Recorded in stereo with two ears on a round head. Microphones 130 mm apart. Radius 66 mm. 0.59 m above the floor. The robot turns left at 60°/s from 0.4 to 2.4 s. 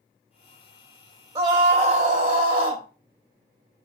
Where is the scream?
50° right, 0.7 m; by 2.8 s 115° right, 0.7 m.